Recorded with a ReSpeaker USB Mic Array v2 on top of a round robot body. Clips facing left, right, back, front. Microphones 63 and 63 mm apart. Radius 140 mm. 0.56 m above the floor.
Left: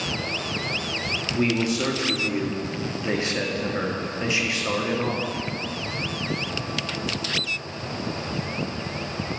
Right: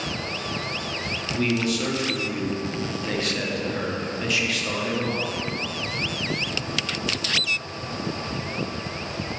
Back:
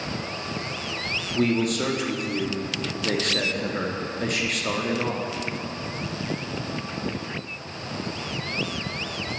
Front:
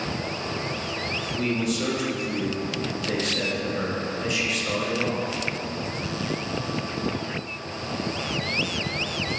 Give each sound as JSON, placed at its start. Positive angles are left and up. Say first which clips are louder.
{"t": 1.4, "sound": "a man speaking", "louder": "left 1 dB, back 4 dB", "azimuth_deg": 150, "distance_m": 1.1}